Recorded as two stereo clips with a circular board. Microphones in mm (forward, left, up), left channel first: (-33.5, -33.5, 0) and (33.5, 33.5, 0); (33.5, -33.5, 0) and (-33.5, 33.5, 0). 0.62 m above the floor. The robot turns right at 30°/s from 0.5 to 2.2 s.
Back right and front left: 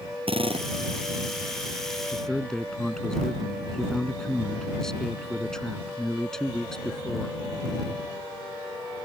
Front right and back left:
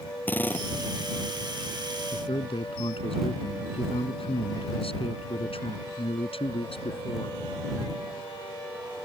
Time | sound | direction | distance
0.3 | a drill | 25° left | ?
2.1 | a man speaking | 55° right | ?